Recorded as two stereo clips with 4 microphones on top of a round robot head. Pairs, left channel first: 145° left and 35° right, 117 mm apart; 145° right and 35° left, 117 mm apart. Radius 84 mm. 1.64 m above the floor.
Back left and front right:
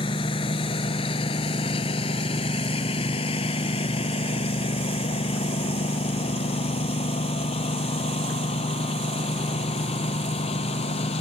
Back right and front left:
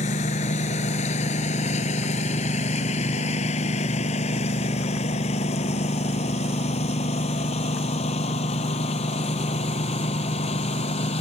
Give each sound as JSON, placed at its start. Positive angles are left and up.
{"t": 0.0, "sound": "a lawn mower", "azimuth_deg": -170}